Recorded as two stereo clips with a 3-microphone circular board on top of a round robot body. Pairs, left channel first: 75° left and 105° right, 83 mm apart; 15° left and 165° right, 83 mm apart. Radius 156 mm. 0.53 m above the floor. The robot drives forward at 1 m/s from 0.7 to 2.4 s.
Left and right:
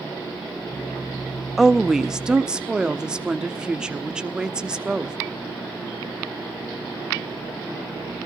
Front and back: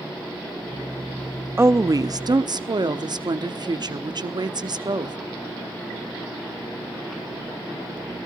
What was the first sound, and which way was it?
A woman speaking, 165° left.